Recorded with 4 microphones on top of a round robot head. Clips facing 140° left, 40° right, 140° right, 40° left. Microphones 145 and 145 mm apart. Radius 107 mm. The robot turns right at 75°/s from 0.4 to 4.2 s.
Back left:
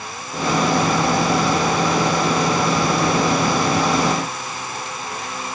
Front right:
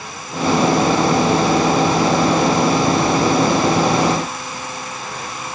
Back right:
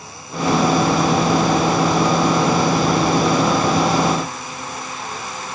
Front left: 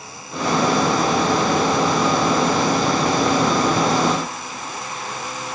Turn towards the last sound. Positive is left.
No sound to turn to.